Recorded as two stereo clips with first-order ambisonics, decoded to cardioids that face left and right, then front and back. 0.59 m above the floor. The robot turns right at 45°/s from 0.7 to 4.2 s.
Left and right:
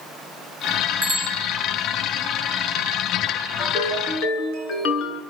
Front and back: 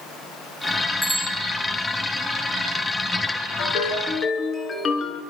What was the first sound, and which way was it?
A bicycle bell, 80° right.